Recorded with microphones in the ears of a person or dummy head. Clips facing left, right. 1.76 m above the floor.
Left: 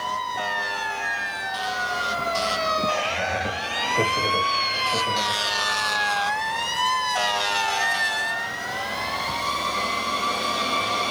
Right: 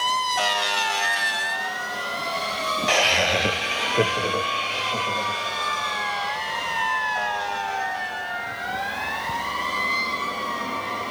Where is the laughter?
75° right (ahead or behind), 0.6 m; by 5.5 s 10° left (ahead or behind), 1.5 m.